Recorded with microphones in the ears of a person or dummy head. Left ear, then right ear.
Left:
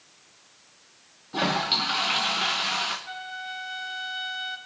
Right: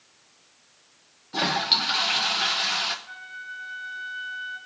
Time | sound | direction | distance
1.3 | a toilet flushing | 20° right (ahead or behind) | 0.8 m
3.1 | a flute | 55° left (ahead or behind) | 1.6 m